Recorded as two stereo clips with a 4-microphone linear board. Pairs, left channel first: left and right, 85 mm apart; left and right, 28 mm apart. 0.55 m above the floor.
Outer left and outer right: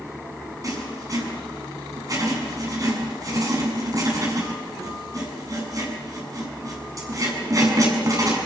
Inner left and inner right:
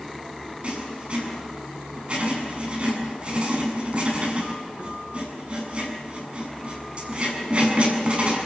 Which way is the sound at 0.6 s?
40° right (ahead or behind).